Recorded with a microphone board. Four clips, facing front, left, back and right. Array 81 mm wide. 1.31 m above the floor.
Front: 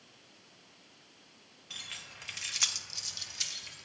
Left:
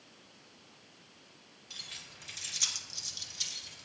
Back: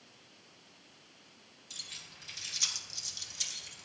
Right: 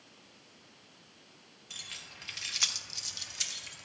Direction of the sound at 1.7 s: 5° right.